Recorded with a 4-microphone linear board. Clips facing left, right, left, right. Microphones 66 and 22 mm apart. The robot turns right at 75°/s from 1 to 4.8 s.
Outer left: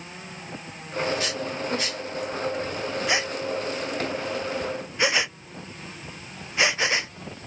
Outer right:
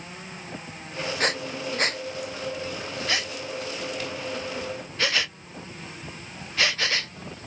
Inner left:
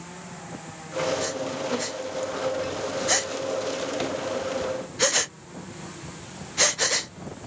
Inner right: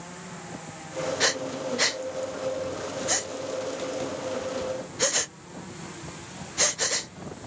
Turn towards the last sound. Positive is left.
turn(degrees=20)  # may be behind; listen again after turning